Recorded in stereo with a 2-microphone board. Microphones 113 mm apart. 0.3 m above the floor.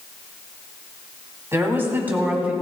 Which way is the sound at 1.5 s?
25° right (ahead or behind).